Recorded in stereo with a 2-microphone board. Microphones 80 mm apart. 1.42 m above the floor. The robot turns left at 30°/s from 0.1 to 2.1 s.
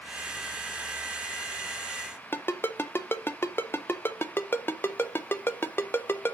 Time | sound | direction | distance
2.3 | a ringtone | 30° left (ahead or behind) | 0.5 m